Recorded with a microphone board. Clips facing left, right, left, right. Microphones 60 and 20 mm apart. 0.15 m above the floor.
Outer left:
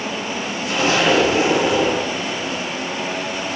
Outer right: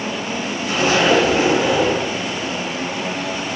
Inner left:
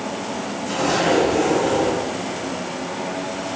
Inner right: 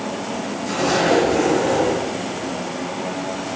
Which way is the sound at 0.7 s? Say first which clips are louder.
Outer right 1 dB, inner right 1 dB; 35° right (ahead or behind).